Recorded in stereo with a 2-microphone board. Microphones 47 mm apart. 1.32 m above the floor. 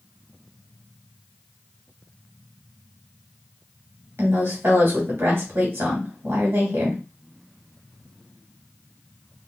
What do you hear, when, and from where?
4.2 s a woman speaking: 65° right (ahead or behind), 2.0 m